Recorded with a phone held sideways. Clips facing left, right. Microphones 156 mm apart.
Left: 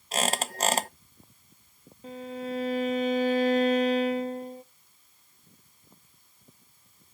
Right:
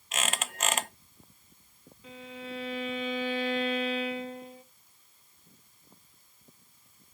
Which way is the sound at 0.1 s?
35° left (ahead or behind).